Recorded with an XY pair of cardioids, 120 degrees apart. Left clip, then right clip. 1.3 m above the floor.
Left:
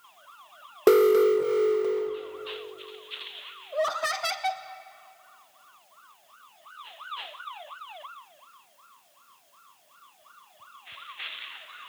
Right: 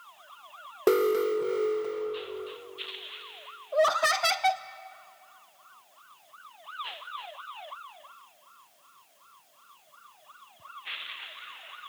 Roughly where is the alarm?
Ahead left.